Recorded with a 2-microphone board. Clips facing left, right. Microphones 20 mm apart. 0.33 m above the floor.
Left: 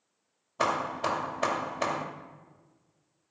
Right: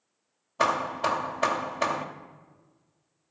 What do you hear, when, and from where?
0.6 s hammering: 15° right (ahead or behind), 0.7 m